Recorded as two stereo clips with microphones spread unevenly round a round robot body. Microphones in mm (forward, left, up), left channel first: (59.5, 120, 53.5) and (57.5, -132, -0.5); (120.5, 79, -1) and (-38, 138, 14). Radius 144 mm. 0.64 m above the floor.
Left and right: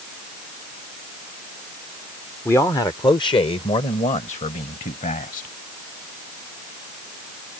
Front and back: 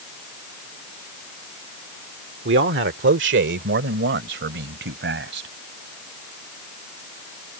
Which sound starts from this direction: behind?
A man speaking, at 2.5 s.